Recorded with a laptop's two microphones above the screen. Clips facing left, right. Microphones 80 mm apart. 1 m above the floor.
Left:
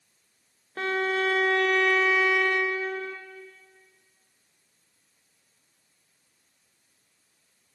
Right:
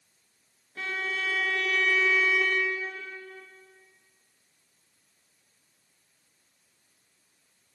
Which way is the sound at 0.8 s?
55° left (ahead or behind).